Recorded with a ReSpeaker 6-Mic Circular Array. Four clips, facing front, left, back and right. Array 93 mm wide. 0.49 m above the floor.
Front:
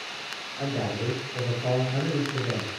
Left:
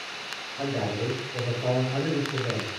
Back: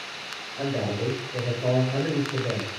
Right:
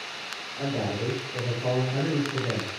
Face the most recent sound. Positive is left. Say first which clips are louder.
# even, back 2 dB
turn(degrees=160)